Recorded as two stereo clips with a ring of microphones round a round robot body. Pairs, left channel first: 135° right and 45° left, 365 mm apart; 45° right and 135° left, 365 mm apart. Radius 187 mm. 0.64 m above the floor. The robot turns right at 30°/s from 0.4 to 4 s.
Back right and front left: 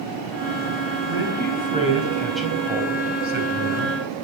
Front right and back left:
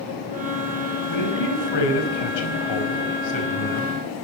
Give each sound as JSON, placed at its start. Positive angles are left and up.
{"t": 1.1, "sound": "a man speaking", "azimuth_deg": -85, "distance_m": 4.5}